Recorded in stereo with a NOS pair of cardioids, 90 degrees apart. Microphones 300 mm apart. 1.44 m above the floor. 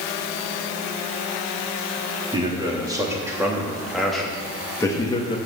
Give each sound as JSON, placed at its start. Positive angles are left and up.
{"t": 2.3, "sound": "a man speaking", "azimuth_deg": -15, "distance_m": 3.0}